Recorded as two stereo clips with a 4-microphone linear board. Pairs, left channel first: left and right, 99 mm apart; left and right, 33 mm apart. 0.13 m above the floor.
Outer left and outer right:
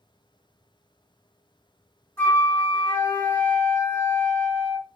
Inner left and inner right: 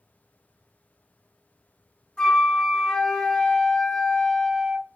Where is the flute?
25° left (ahead or behind), 1.9 m.